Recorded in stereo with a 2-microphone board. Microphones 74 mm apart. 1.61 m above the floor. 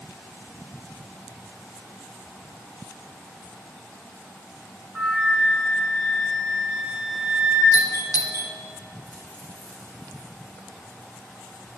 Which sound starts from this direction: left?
A doorbell, at 7.7 s.